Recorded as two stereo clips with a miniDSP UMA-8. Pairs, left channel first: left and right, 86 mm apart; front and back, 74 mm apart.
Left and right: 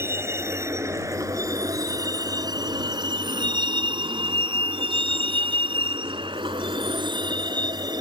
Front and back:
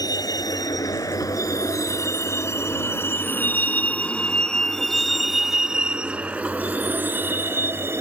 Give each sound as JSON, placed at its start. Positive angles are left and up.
{"t": 0.0, "sound": "a vehicle", "azimuth_deg": -30}